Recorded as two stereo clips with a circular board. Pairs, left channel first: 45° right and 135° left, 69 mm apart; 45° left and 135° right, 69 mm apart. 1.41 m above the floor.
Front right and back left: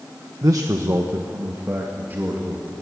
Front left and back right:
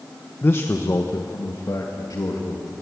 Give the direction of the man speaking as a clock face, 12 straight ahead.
9 o'clock.